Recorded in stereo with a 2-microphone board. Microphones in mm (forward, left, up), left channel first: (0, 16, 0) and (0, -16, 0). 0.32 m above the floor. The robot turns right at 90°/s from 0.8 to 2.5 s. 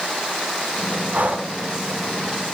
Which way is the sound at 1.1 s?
70° right.